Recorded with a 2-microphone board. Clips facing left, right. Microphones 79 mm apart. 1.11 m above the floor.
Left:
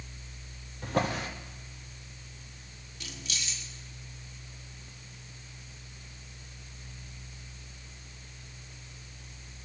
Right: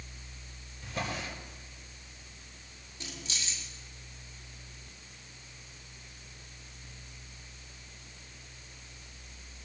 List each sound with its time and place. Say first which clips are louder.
0.8 s a drawer: left 7 dB; 75° left (ahead or behind), 2 m
3.0 s keys jangling: left 1 dB; 35° right (ahead or behind), 1.7 m